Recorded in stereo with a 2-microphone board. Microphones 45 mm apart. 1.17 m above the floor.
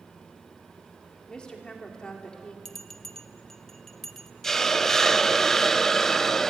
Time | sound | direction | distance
1.3 | a woman speaking | 20° left (ahead or behind) | 3.5 m
2.6 | a bell | 10° left (ahead or behind) | 1.2 m
4.4 | a hiss | 10° left (ahead or behind) | 0.6 m